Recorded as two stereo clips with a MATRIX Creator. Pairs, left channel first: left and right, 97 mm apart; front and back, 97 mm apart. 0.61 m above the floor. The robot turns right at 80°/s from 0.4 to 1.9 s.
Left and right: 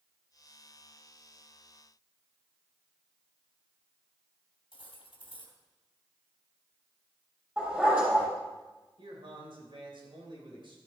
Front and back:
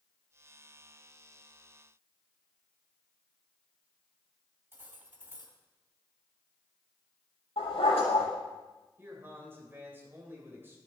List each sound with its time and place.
4.7 s cutlery clinking: 115° left, 2.5 m
7.6 s a dog barking: 20° right, 6.5 m
9.0 s a man speaking: 115° right, 2.5 m